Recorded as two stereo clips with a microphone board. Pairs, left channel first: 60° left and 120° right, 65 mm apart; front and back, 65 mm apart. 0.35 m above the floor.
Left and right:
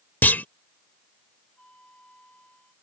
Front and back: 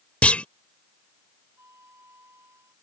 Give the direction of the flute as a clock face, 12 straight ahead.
8 o'clock.